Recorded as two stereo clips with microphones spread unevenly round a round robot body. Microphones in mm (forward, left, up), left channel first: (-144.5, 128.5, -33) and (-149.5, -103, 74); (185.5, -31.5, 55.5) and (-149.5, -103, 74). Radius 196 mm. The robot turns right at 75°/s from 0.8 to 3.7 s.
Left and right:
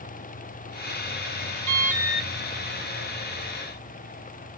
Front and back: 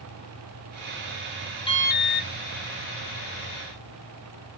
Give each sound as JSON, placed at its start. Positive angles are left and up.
{"t": 1.7, "sound": "an alarm", "azimuth_deg": -55, "distance_m": 1.0}